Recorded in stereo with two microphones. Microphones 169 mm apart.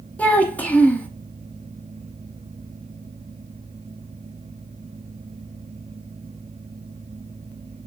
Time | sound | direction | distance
0.2 | a child speaking | 10° left (ahead or behind) | 0.6 m